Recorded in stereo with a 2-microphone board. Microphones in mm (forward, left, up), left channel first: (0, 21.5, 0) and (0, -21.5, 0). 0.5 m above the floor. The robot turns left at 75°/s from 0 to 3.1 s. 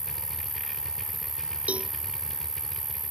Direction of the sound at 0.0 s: 90° left.